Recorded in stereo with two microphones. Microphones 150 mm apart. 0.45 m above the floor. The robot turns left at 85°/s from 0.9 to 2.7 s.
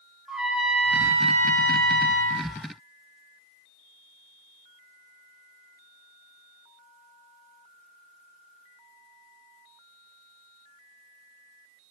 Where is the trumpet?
5° right, 0.6 m; by 2.5 s 140° right, 0.6 m.